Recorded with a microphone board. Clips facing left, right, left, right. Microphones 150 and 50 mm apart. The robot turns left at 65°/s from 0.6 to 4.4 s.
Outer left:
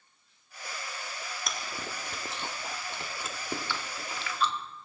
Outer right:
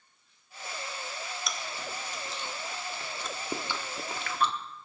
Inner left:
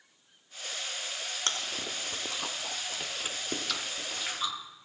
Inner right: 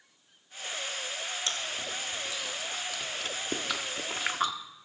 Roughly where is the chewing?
Left.